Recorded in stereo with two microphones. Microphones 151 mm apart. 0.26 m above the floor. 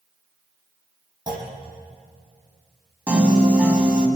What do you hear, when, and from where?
1.3 s a clunk: 30° right (ahead or behind), 5.5 m
3.1 s a piano: 10° right (ahead or behind), 2.5 m